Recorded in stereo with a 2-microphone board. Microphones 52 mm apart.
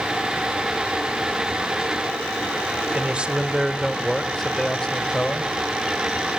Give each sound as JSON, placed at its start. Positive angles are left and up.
{"t": 2.9, "sound": "a man speaking", "side_deg": -25, "distance_m": 1.0}